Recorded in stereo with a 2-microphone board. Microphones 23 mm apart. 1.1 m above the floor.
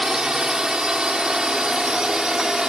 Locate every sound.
0.0 s a drone: 30° right (ahead or behind)